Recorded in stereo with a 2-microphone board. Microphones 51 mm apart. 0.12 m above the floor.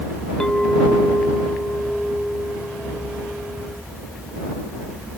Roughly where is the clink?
Centre.